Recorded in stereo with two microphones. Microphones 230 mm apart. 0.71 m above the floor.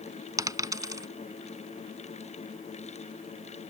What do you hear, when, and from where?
0.4 s a dropped coin: 15° right (ahead or behind)